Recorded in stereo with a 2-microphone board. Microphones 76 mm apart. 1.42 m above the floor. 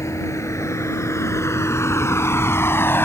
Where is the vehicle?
40° left (ahead or behind); by 3.0 s 30° left (ahead or behind).